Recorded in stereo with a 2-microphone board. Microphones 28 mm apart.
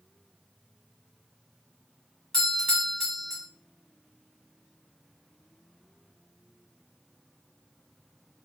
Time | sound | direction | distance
2.3 | a doorbell | 20° left (ahead or behind) | 1.4 m